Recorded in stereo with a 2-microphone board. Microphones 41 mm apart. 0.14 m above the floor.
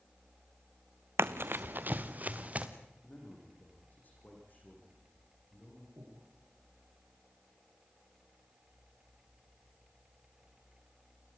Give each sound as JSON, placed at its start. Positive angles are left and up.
{"t": 1.2, "sound": "running footsteps", "side_deg": -80, "distance_m": 0.8}
{"t": 3.0, "sound": "a man speaking", "side_deg": 45, "distance_m": 8.5}
{"t": 6.0, "sound": "breathing", "side_deg": -80, "distance_m": 7.5}